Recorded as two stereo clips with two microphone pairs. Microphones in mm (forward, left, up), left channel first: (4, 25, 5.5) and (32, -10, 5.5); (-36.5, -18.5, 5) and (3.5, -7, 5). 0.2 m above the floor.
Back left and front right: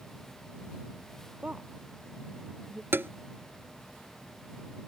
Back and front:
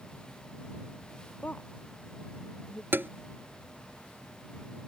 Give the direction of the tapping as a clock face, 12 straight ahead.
1 o'clock.